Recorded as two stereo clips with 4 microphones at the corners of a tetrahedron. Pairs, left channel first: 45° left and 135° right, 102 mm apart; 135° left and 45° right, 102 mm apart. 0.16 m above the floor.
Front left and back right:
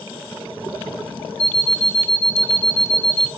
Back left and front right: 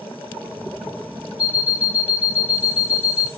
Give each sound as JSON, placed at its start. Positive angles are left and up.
{"t": 1.4, "sound": "an alarm clock", "azimuth_deg": 35, "distance_m": 1.4}